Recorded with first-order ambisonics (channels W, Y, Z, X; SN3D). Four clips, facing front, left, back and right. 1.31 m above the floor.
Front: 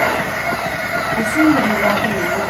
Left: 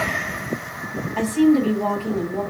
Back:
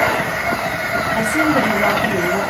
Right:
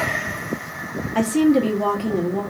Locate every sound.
1.1 s a woman speaking: 125° right, 0.8 m